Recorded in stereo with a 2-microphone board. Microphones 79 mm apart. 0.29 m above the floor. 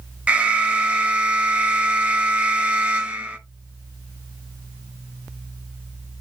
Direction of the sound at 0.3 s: 15° right (ahead or behind).